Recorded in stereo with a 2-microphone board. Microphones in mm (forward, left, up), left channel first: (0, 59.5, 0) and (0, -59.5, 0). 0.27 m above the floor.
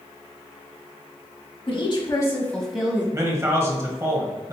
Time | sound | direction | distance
1.7 | a woman speaking | 50° left (ahead or behind) | 1.4 m
3.1 | a man speaking | 25° right (ahead or behind) | 1.1 m